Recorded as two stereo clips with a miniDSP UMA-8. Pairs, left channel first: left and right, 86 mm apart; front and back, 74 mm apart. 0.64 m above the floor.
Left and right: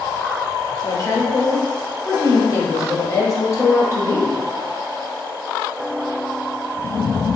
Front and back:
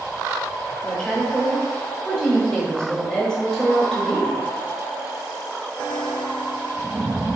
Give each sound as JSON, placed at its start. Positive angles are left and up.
{"t": 0.8, "sound": "a woman speaking", "azimuth_deg": 75, "distance_m": 0.8}